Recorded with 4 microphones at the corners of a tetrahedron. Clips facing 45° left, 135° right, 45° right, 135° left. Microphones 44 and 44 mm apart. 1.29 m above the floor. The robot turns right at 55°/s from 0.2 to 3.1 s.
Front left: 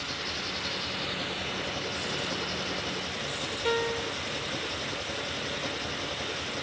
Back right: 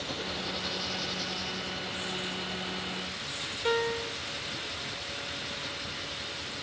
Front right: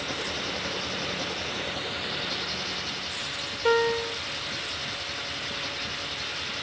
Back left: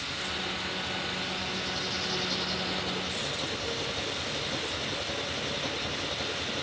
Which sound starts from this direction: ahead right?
A piano, at 3.6 s.